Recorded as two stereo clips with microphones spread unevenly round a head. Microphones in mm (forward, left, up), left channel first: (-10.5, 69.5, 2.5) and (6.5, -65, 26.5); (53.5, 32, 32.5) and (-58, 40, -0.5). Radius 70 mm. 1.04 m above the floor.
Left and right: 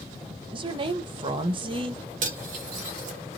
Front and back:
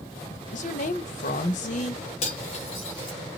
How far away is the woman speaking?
About 0.5 m.